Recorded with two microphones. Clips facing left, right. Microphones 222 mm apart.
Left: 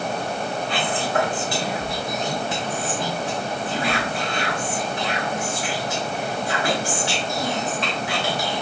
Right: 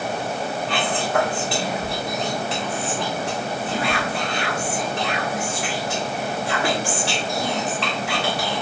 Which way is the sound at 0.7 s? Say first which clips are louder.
Right 2 dB; 70° right (ahead or behind).